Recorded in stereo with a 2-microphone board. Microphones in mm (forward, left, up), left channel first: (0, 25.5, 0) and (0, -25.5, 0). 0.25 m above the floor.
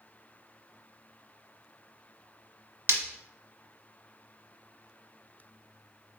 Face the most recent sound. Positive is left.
turn(degrees=-60)  # may be behind; listen again after turning